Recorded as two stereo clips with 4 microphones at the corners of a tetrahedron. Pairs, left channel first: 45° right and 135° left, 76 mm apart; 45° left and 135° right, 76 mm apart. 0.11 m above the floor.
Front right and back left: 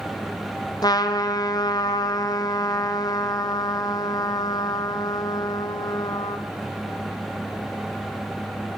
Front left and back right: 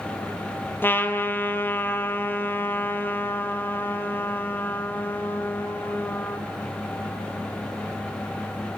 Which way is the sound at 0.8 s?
15° right.